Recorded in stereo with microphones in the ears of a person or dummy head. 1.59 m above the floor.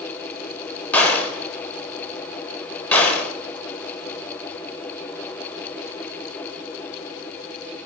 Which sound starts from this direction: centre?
A gunshot, at 0.9 s.